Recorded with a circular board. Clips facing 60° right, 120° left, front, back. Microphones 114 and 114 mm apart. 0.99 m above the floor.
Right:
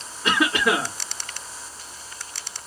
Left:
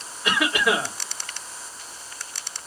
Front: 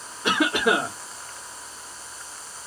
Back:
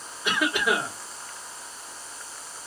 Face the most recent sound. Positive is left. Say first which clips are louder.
# right 1 dB, front 4 dB
turn(degrees=-5)